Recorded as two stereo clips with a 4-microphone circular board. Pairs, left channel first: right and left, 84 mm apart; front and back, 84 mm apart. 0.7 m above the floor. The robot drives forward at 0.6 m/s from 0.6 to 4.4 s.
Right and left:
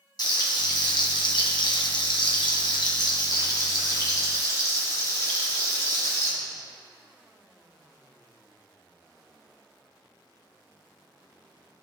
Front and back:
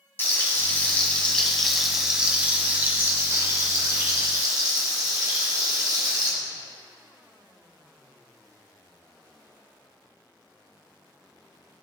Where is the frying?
60° right, 1.5 m; by 6.3 s 140° right, 2 m.